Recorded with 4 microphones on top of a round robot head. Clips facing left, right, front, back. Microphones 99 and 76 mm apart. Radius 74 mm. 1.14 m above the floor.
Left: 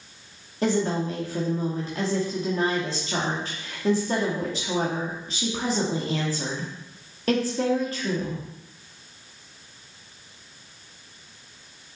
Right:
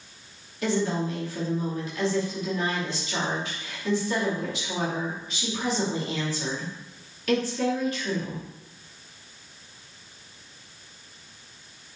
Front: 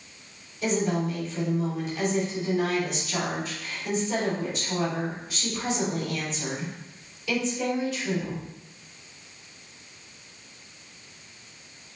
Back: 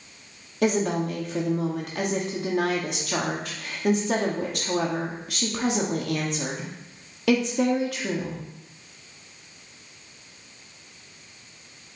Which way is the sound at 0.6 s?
155° left.